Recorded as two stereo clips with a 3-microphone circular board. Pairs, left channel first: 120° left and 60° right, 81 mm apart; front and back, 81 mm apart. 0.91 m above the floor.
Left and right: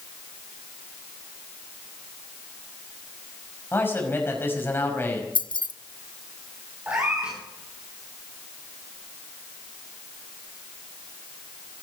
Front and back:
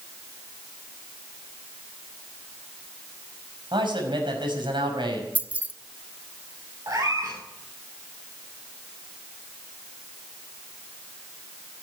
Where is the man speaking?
Straight behind, 5.5 m.